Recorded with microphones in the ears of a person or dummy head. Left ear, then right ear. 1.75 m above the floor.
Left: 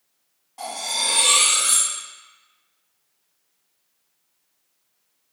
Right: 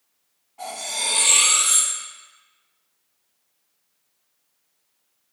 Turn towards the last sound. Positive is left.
turn(degrees=60)  # may be behind; listen again after turning